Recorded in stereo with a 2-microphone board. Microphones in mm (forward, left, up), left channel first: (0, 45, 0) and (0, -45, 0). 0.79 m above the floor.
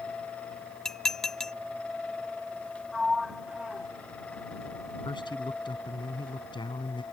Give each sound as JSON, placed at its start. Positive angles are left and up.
{"t": 0.8, "sound": "dishes clattering", "side_deg": 5}
{"t": 2.9, "sound": "a sliding door", "side_deg": -5}
{"t": 5.0, "sound": "a man speaking", "side_deg": 55}